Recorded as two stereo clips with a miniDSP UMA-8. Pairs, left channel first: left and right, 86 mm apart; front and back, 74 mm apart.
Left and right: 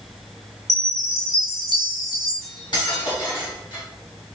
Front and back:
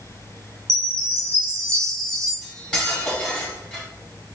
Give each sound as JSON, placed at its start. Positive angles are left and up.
{"t": 0.7, "sound": "a chime", "azimuth_deg": 175, "distance_m": 1.4}
{"t": 2.4, "sound": "cutlery clinking", "azimuth_deg": 80, "distance_m": 1.5}